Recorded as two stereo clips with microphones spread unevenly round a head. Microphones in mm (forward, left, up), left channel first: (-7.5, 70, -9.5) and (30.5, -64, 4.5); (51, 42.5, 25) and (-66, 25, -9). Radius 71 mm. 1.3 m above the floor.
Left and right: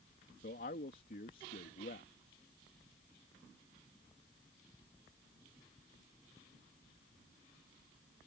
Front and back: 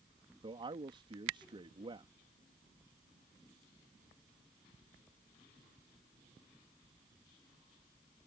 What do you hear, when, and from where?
0.4 s a man speaking: 140° left